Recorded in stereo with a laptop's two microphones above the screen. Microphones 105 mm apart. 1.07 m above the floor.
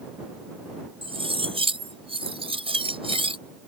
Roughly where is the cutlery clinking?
Right.